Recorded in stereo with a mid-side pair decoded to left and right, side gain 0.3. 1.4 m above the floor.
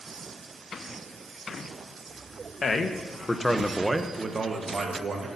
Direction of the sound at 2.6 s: 55° left.